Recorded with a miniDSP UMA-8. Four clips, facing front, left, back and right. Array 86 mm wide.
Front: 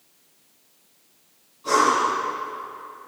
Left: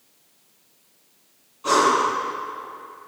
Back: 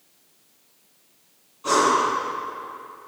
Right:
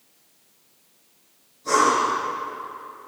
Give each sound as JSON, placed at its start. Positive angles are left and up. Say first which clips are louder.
{"t": 1.6, "sound": "breathing", "louder": "left 1 dB, even", "azimuth_deg": 115, "distance_m": 7.0}